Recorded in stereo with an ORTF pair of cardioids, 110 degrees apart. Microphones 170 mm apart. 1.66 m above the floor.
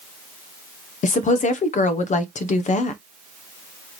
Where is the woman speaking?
45° left, 0.9 m.